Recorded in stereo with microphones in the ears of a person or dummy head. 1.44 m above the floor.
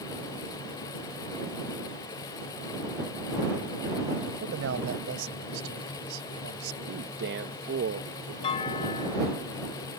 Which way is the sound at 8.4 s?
30° left (ahead or behind).